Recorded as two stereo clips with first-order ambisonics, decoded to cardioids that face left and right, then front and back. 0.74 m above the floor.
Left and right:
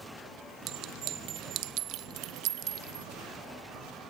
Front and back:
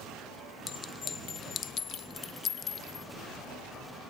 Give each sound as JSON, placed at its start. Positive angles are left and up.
{"t": 0.7, "sound": "a clink", "azimuth_deg": -60, "distance_m": 0.8}